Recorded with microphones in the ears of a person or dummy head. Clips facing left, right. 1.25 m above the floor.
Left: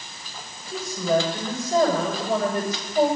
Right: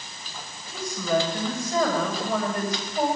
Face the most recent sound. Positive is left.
turn(degrees=50)  # may be behind; listen again after turning